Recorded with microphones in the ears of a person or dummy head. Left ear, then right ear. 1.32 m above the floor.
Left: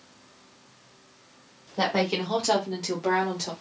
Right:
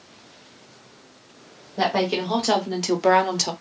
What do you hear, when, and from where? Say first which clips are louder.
1.8 s a woman speaking: right 3 dB; centre (ahead or behind), 1.0 m; by 3.5 s 60° right (ahead or behind), 0.8 m